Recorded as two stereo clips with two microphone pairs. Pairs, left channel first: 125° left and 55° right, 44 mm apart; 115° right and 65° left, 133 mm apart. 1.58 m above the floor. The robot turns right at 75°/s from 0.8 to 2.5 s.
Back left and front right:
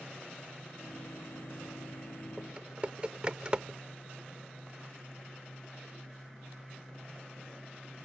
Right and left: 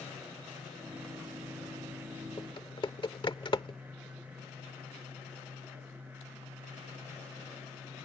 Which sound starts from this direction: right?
Typing on a keyboard, at 2.4 s.